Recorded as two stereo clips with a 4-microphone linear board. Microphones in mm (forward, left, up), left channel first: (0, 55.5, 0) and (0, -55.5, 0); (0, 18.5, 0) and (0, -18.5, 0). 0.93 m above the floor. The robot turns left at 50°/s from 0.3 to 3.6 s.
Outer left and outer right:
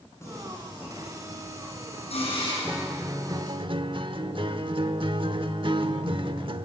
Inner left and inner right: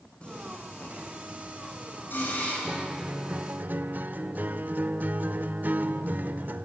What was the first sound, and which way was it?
Singing, 155° left.